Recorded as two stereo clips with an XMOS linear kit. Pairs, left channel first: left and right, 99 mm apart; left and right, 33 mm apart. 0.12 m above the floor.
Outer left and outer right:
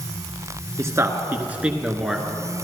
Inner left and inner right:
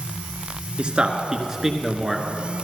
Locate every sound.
0.8 s a man speaking: 30° right (ahead or behind), 1.2 m; by 2.2 s centre (ahead or behind), 1.3 m